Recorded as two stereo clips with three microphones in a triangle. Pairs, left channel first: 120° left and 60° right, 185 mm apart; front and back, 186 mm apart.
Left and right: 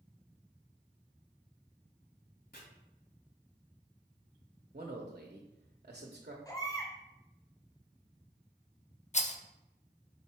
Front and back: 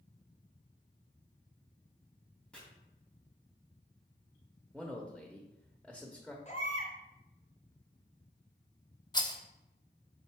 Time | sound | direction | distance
2.5 | chopping | 85° left | 2 m
4.7 | a man speaking | 90° right | 1.0 m
6.5 | a baby crying | 50° left | 1.6 m
9.1 | a rattle | 65° left | 0.6 m